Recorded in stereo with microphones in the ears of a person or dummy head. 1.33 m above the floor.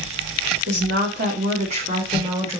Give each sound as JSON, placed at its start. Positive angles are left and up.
{"t": 0.7, "sound": "a woman speaking", "side_deg": -60, "distance_m": 1.2}